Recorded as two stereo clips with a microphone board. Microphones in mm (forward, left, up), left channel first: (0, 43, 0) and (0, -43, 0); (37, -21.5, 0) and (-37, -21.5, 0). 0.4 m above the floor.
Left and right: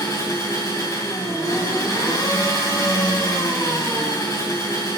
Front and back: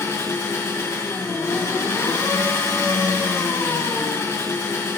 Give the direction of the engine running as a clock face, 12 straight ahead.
10 o'clock.